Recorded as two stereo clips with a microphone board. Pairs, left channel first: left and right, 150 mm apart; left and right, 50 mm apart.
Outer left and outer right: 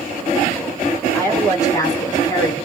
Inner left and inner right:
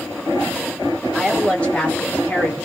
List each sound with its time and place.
1.1 s a woman speaking: 15° left (ahead or behind), 1.5 m; by 2.5 s 25° left (ahead or behind), 1.2 m